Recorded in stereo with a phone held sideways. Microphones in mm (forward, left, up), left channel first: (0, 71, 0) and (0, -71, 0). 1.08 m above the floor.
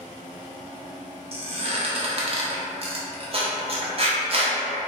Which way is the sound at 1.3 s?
45° right (ahead or behind).